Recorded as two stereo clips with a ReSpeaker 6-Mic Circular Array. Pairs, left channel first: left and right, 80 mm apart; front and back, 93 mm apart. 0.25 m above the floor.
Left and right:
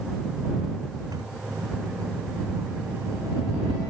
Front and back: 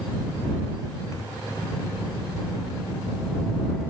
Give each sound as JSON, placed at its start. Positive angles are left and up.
{"t": 1.1, "sound": "a microwave", "azimuth_deg": -55}